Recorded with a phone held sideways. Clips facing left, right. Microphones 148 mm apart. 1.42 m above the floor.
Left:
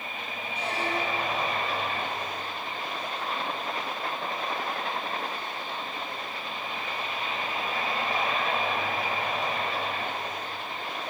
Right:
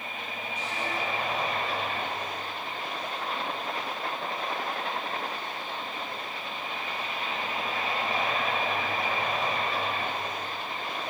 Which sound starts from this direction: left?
A squeak, at 0.6 s.